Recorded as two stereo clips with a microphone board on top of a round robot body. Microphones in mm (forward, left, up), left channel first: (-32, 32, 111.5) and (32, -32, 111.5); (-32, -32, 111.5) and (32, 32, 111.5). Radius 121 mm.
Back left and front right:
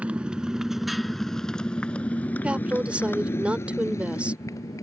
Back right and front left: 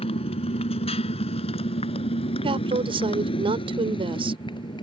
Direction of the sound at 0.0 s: 120° right.